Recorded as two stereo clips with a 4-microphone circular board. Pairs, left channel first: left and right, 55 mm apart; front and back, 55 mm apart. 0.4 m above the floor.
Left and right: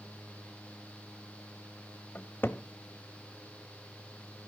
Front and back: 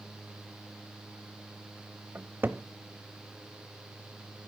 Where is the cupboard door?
135° left, 0.9 m.